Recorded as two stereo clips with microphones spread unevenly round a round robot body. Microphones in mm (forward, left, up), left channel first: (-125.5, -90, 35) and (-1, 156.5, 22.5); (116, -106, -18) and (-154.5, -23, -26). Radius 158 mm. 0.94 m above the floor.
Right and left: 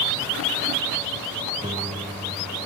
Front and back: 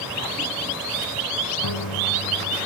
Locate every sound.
1.6 s a piano: 10° right